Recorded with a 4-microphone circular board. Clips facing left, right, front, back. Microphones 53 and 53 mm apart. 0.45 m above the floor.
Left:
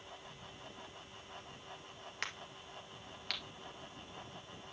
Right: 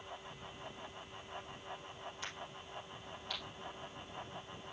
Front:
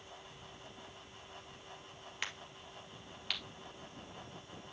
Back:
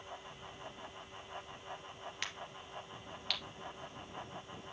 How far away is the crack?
About 2 m.